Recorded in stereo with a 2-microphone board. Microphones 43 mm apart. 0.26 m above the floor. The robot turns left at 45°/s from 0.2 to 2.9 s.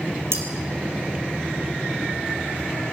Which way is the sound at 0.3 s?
80° right.